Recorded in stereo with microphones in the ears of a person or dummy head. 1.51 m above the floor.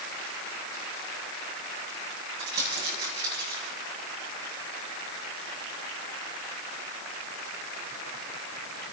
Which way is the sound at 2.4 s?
25° right (ahead or behind).